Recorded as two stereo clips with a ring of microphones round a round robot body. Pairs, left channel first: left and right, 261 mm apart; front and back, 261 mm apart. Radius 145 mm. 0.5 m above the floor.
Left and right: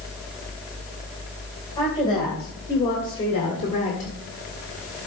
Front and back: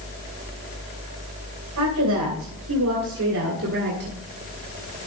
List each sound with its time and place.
1.8 s a woman speaking: 170° left, 2.5 m; by 4.2 s 140° left, 1.5 m